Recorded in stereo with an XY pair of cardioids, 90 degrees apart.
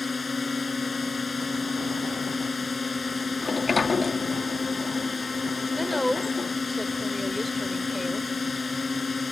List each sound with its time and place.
0.0 s a drone: 30° left
3.4 s a sliding door: 35° left
5.8 s a woman speaking: 5° left